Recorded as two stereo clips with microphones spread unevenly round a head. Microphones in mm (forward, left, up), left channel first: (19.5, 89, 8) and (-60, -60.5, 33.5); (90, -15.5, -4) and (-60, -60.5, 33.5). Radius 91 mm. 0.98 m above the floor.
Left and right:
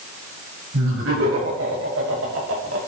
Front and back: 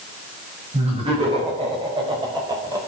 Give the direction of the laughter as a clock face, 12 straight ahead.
4 o'clock.